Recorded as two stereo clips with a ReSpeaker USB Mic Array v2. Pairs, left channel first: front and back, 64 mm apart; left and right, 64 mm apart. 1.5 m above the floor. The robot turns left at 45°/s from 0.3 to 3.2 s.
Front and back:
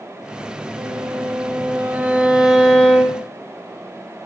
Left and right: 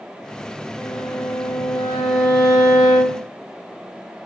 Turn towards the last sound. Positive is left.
turn(degrees=60)